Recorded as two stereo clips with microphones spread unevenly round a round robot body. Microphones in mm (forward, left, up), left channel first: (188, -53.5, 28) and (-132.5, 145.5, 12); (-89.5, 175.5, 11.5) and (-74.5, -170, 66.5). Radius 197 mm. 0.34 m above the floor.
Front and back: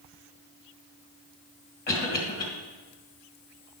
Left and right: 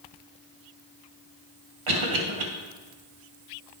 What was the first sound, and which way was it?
A cough, 100° right.